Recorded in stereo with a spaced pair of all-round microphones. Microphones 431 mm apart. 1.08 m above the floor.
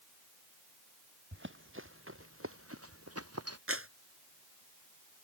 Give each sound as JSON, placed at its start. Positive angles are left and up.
{"t": 1.3, "sound": "running footsteps", "side_deg": -25}
{"t": 3.7, "sound": "a clap", "side_deg": -30}